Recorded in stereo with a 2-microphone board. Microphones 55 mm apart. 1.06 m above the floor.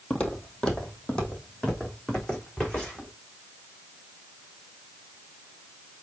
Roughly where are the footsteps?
Left.